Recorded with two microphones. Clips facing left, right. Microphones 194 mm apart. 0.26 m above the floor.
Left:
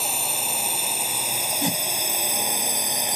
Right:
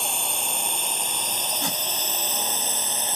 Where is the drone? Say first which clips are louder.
Left 1 dB; 5° left (ahead or behind); by 3.2 s 15° left (ahead or behind).